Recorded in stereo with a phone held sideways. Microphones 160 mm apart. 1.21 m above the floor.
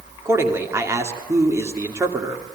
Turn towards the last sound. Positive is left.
turn(degrees=-15)  # may be behind; listen again after turning